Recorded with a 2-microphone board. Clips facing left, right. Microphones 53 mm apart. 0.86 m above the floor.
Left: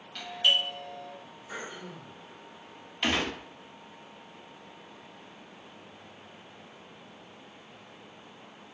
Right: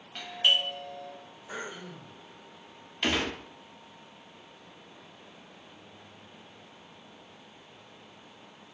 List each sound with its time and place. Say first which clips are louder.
0.1 s a doorbell: even; 25° right (ahead or behind), 1.1 m
1.5 s throat clearing: right 1 dB; 20° right (ahead or behind), 2.5 m
3.0 s a gunshot: even; 5° left (ahead or behind), 0.9 m